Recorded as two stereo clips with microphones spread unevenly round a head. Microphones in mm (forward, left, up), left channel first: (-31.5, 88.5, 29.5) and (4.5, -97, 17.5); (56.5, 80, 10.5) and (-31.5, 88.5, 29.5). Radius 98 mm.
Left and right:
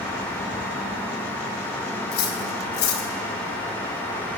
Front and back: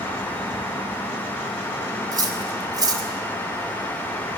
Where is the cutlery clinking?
135° left, 4 m.